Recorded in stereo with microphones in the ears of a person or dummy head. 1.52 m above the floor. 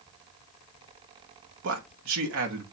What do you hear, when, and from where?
1.6 s a man speaking: 65° right (ahead or behind), 1.2 m